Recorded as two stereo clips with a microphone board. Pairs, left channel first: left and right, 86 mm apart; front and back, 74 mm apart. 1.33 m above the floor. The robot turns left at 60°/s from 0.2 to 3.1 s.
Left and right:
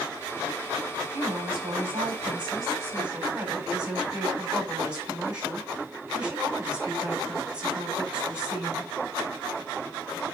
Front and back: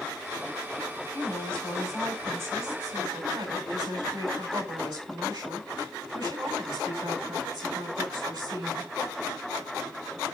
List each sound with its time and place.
1.1 s a woman speaking: 50° right, 6 m; by 8.9 s 165° right, 6 m